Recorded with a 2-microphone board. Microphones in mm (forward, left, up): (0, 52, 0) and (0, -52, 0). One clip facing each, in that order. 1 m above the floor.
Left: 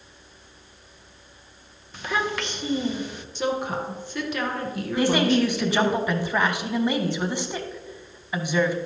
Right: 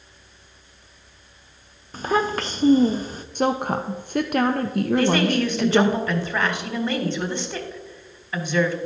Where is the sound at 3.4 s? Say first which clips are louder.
Right 4 dB; 55° right (ahead or behind), 0.5 m.